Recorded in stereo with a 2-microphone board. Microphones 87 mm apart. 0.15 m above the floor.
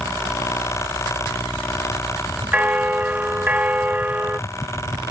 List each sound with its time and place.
2.5 s a bell: 15° right (ahead or behind)